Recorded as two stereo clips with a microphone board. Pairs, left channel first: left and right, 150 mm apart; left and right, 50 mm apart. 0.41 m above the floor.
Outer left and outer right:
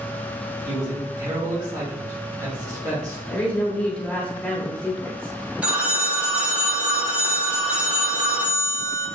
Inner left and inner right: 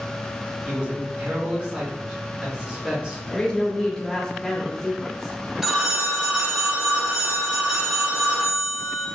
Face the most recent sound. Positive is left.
turn(degrees=-10)  # may be behind; listen again after turning